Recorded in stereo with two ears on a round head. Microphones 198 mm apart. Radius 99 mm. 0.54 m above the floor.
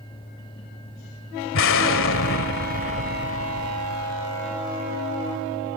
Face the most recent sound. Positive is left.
turn(degrees=65)  # may be behind; listen again after turning